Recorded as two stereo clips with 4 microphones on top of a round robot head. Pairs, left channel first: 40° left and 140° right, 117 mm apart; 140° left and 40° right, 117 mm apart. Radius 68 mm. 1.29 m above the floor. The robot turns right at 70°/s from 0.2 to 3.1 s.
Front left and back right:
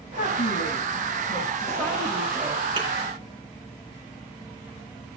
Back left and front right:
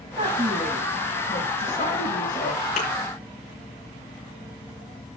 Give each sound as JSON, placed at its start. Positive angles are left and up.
{"t": 0.2, "sound": "a woman speaking", "azimuth_deg": 5, "distance_m": 7.5}
{"t": 2.8, "sound": "a thud", "azimuth_deg": 165, "distance_m": 6.5}